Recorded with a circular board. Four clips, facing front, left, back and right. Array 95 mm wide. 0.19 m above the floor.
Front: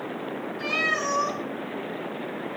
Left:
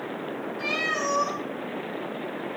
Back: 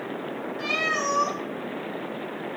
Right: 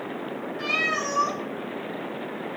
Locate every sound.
0.6 s a cat meowing: 150° right, 4.5 m